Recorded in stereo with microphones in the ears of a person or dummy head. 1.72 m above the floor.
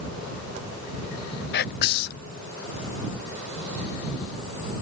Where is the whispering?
55° left (ahead or behind).